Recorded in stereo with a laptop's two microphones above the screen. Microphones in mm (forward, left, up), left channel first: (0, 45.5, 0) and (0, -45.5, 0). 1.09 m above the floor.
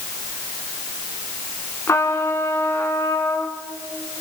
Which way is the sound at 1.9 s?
30° left (ahead or behind).